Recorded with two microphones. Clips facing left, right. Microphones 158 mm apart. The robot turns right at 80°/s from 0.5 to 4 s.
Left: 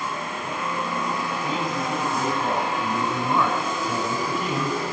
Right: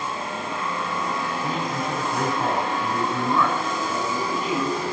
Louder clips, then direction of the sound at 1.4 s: Even; 135° right.